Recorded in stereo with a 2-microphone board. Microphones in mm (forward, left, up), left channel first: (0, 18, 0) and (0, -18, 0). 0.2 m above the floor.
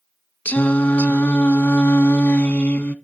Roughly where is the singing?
Left.